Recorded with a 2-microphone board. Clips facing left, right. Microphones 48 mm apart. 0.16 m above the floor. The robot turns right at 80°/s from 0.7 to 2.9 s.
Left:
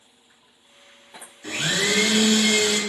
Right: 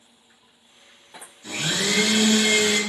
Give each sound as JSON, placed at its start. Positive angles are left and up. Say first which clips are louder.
{"t": 1.4, "sound": "a blender", "louder": "left 2 dB", "azimuth_deg": 120, "distance_m": 0.7}